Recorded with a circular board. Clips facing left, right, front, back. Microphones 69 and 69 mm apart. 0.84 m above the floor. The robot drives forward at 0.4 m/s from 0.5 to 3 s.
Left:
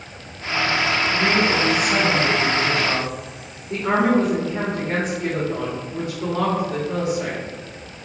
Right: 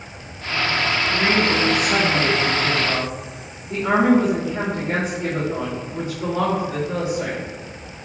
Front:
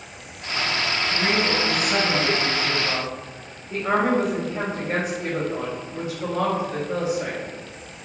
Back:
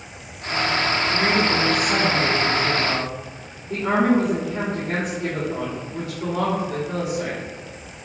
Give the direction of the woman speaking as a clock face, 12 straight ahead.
5 o'clock.